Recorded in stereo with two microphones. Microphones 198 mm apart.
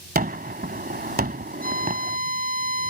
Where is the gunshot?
50° right (ahead or behind).